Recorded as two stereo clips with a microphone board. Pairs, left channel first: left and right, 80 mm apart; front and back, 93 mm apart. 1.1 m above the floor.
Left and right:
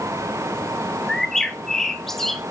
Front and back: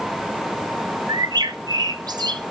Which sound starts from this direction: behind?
A bird, at 1.1 s.